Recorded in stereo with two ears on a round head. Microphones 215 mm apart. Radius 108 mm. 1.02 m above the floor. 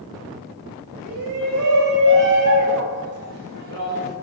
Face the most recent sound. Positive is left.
turn(degrees=-55)  # may be behind; listen again after turning